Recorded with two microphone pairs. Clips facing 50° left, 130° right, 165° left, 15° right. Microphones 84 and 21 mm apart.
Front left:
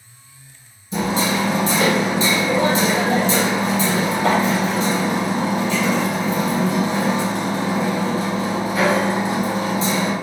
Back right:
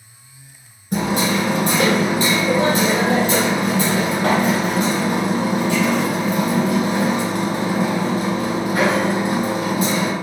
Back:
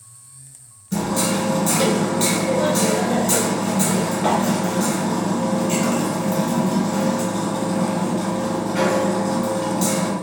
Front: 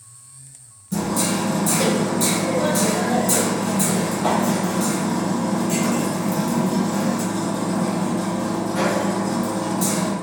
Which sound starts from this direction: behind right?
Hammering, at 0.9 s.